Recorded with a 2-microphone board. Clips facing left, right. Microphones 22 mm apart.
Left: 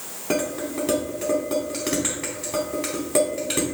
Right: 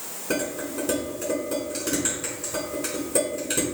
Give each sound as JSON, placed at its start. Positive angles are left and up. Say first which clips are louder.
{"t": 0.3, "sound": "dishes clattering", "louder": "left 3 dB", "side_deg": 75, "distance_m": 3.5}